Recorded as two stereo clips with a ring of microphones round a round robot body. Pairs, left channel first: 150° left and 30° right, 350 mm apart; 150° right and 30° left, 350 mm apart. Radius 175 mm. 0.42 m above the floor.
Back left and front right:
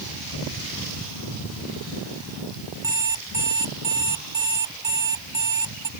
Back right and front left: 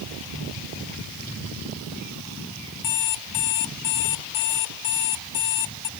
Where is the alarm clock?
110° right.